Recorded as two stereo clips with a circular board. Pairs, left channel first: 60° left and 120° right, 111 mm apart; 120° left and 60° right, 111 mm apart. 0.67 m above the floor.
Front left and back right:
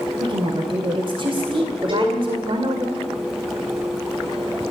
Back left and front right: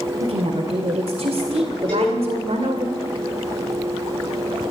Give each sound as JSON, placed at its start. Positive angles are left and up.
{"t": 0.2, "sound": "a woman speaking", "azimuth_deg": -80, "distance_m": 2.0}
{"t": 1.9, "sound": "a cowbell", "azimuth_deg": -160, "distance_m": 9.5}